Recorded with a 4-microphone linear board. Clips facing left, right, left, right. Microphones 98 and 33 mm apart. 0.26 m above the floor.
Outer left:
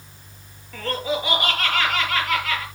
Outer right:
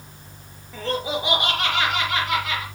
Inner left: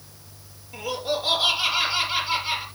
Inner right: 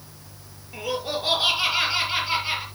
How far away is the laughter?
About 6 m.